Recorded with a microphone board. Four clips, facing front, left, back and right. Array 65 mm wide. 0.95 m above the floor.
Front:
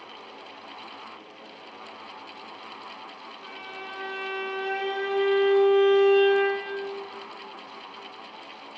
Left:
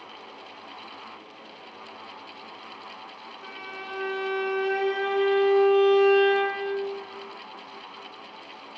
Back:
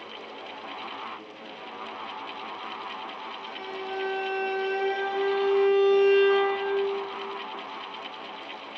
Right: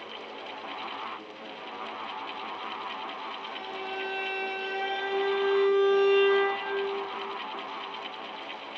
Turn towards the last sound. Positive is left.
turn(degrees=80)